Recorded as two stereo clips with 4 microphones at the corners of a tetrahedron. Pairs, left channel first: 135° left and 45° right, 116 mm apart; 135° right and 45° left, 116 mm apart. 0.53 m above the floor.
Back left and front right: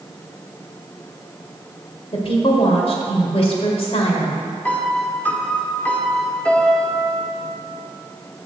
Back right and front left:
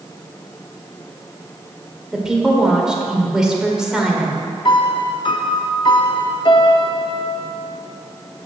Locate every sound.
2.1 s a woman speaking: 130° left, 1.8 m
4.7 s a piano: 155° right, 0.8 m